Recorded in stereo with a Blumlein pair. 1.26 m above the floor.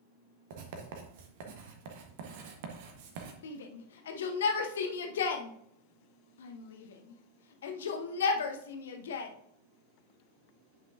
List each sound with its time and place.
0.5 s writing: 50° right, 1.2 m
3.4 s a shout: 60° left, 1.0 m